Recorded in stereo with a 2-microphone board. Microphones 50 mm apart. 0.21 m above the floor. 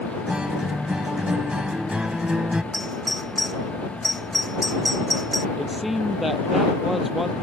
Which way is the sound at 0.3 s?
20° right (ahead or behind).